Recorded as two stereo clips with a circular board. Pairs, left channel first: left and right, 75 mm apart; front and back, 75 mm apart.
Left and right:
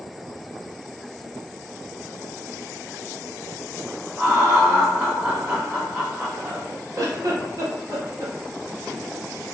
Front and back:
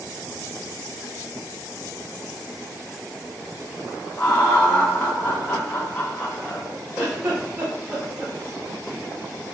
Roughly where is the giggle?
Right.